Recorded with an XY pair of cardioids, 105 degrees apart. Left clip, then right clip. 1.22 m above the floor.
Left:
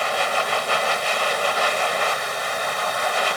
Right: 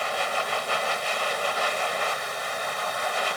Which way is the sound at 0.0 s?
35° left.